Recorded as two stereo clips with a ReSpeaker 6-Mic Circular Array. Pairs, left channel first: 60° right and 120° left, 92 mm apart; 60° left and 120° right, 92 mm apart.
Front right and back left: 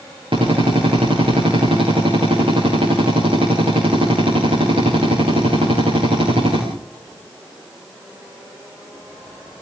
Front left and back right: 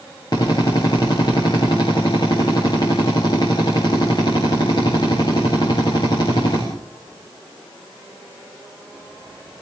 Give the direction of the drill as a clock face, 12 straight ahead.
9 o'clock.